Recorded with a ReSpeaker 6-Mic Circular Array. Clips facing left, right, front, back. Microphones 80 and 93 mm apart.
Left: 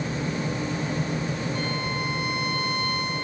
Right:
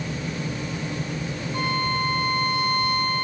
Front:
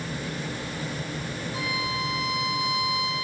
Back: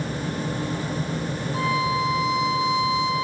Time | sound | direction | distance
1.5 | a violin | 125° right | 3.5 m